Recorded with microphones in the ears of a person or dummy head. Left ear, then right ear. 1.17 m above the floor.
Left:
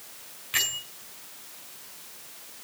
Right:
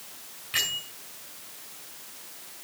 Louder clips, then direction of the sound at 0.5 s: Even; 20° left (ahead or behind).